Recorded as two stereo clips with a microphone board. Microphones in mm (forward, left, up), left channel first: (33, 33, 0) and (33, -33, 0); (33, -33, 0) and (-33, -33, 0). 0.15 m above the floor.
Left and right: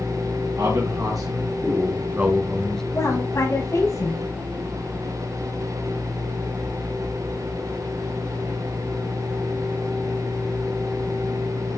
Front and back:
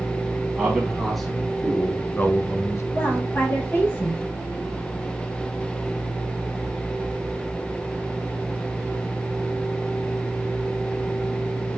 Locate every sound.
0.6 s a man speaking: 95° right, 3 m; by 2.8 s 15° left, 1.5 m
2.9 s a woman speaking: 55° left, 4 m